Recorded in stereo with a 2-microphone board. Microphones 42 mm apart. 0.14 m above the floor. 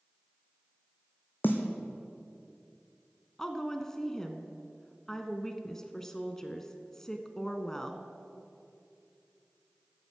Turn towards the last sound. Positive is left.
turn(degrees=10)  # may be behind; listen again after turning